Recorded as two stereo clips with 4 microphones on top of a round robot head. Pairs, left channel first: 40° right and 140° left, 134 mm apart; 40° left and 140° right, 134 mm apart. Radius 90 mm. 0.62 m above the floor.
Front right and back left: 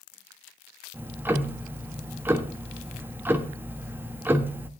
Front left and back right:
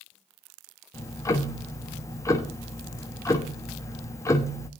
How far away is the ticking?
About 1.3 m.